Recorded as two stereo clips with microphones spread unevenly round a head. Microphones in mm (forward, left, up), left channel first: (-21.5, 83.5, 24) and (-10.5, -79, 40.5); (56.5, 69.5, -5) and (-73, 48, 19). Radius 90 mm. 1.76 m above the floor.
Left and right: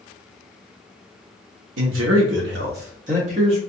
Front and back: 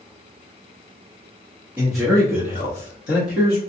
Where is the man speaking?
95° right, 0.7 m; by 3.6 s 30° right, 1.2 m.